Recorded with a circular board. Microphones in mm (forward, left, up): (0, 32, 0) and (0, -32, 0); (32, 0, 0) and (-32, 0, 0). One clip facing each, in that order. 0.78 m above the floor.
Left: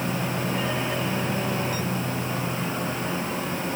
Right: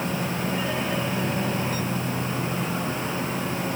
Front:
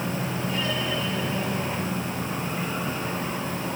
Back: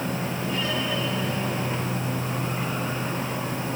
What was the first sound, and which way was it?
Only background noise.